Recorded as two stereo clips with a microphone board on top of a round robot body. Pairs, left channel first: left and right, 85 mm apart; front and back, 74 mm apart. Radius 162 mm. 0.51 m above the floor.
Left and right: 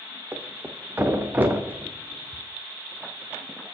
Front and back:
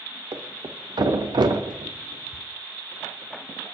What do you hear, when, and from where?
0.3 s a thud: 160° right, 0.7 m